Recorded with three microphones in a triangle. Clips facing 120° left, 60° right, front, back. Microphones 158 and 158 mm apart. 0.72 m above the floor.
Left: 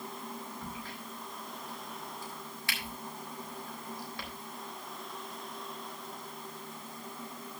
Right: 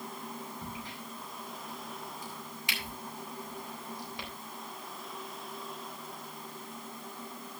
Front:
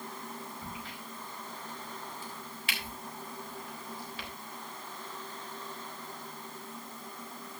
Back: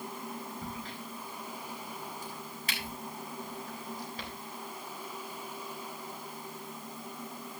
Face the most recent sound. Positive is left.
turn(degrees=-130)